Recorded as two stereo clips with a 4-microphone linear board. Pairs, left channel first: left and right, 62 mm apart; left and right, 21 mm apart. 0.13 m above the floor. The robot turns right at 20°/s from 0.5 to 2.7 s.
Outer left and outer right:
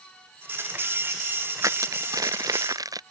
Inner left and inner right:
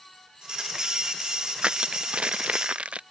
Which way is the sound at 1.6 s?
65° right (ahead or behind).